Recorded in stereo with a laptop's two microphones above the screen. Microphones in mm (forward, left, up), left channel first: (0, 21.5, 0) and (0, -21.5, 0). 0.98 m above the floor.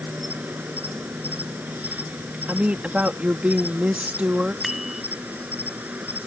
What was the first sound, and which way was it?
An insect, 40° right (ahead or behind).